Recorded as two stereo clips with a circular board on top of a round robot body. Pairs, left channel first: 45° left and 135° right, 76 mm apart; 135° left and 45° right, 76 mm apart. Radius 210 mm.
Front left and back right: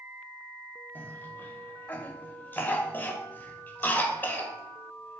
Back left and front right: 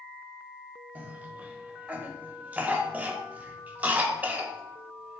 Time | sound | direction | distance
0.9 | a cough | 5° left | 0.8 m